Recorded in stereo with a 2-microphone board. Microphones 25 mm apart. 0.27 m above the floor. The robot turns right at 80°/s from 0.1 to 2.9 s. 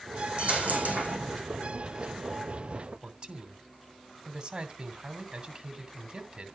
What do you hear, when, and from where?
0.4 s a dropped coin: 130° right, 4 m; by 1.4 s 50° right, 4 m
3.0 s a man speaking: 35° right (ahead or behind), 2 m